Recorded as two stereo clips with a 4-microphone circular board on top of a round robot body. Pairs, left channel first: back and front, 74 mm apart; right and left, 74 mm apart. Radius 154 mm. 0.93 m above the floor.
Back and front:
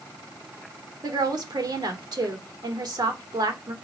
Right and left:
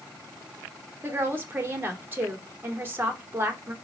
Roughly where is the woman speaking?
Ahead left.